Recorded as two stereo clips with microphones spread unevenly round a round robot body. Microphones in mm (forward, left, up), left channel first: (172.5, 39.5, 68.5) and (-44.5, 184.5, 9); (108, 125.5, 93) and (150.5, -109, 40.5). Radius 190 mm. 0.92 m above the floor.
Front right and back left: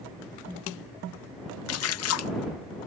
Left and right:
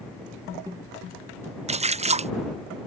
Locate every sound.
1.7 s a splash: 45° right